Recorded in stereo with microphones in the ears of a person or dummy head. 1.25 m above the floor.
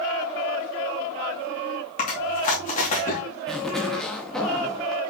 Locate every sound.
2.0 s chewing: 35° left (ahead or behind), 2.5 m
3.5 s a zipper: centre (ahead or behind), 0.7 m